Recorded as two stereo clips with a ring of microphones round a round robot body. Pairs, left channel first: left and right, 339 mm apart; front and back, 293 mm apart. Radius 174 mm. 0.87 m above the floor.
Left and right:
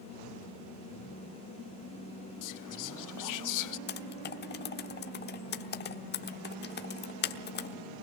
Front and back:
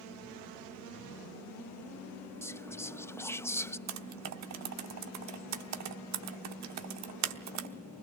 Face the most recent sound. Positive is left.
turn(degrees=150)